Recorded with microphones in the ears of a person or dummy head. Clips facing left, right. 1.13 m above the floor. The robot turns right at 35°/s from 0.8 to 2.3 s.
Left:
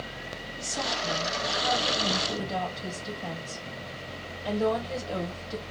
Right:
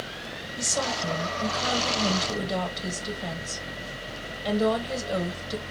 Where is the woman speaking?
70° right, 1.7 m; by 5.6 s 20° right, 1.7 m.